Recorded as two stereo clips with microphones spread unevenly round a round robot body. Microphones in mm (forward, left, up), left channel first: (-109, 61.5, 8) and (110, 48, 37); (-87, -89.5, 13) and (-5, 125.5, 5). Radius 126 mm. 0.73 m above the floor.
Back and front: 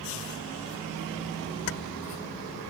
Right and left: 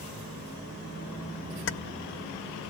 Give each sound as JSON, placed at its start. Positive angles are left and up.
{"t": 1.7, "sound": "keys jangling", "azimuth_deg": -150, "distance_m": 0.8}